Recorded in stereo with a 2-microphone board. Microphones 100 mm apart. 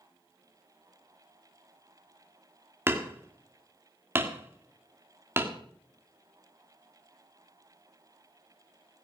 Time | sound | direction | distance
2.9 | hammering | 25° right (ahead or behind) | 1.6 m